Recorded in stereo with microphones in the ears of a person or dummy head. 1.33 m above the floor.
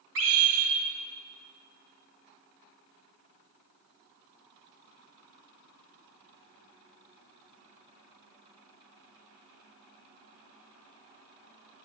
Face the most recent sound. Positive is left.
turn(degrees=-75)  # may be behind; listen again after turning